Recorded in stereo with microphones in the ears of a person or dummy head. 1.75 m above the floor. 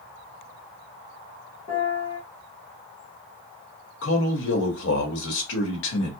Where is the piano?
50° left (ahead or behind), 1.5 m.